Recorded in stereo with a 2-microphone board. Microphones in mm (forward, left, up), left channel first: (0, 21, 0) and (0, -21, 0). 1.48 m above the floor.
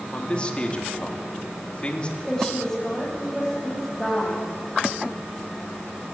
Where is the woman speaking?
10° left (ahead or behind), 9 m.